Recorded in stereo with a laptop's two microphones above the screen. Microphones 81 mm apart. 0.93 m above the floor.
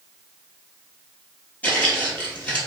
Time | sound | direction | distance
1.6 | footsteps | 20° left (ahead or behind) | 1.3 m